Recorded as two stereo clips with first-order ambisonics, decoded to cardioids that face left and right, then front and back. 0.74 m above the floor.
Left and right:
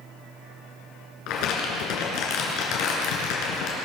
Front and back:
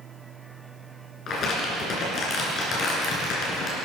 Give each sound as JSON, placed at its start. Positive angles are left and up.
{"t": 1.3, "sound": "crumpling", "azimuth_deg": 55, "distance_m": 3.0}